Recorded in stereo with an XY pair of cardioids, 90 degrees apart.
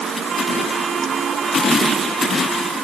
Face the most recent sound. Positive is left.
No sound to turn to.